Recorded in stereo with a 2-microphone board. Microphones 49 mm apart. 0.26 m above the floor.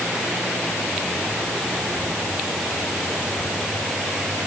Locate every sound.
Only background noise.